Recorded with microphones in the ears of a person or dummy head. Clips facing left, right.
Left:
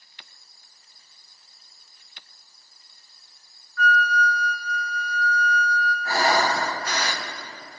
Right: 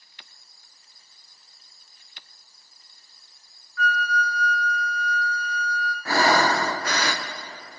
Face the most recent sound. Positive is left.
turn(degrees=-55)  # may be behind; listen again after turning